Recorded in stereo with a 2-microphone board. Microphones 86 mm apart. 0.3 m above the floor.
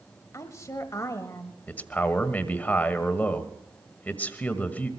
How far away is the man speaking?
About 1.6 m.